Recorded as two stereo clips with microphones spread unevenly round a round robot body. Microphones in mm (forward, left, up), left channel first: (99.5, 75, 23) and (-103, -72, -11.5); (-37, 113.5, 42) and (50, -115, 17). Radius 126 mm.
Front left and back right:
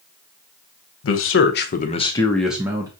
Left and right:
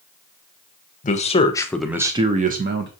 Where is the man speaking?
55° left, 0.8 m; by 2.9 s 80° right, 0.8 m.